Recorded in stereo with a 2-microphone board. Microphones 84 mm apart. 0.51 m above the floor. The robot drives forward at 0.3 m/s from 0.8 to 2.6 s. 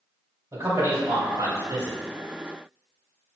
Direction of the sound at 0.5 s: 50° right (ahead or behind).